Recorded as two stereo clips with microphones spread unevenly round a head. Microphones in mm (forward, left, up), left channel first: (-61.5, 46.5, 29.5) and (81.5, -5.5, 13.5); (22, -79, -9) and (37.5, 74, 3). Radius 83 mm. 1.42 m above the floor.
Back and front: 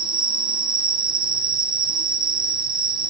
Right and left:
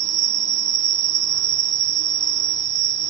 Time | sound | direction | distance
0.0 | an insect | 45° left | 1.0 m